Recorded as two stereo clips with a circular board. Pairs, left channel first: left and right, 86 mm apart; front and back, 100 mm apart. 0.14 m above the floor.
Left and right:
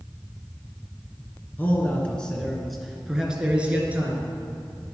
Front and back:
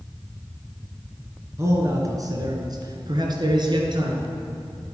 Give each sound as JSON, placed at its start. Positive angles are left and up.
{"t": 1.6, "sound": "a man speaking", "azimuth_deg": 145, "distance_m": 2.0}